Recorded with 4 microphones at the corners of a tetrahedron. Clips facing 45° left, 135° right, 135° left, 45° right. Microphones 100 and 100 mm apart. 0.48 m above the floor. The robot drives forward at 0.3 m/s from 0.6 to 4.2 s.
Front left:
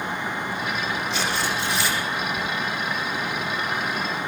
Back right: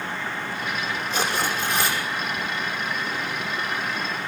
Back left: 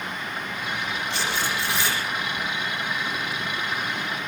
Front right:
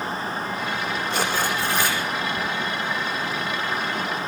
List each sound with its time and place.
1.1 s tearing paper: 90° right, 9 m; by 2.0 s 95° right, 9 m